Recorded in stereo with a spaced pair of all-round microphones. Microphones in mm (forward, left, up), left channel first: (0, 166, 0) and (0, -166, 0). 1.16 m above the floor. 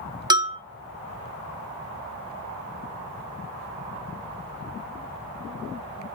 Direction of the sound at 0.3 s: 15° right (ahead or behind).